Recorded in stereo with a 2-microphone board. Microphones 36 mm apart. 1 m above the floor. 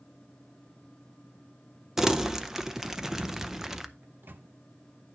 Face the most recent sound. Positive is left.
turn(degrees=-70)  # may be behind; listen again after turning